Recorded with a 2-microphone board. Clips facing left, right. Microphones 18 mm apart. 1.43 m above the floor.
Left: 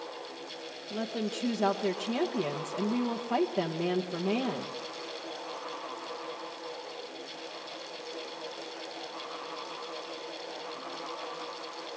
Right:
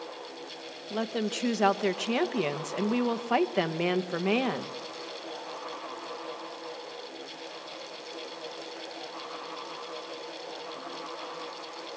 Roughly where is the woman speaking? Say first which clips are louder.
Right 3 dB; right.